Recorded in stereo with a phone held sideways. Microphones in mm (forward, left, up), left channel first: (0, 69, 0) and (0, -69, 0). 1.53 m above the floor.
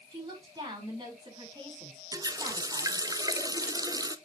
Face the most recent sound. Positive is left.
turn(degrees=-25)  # may be behind; listen again after turning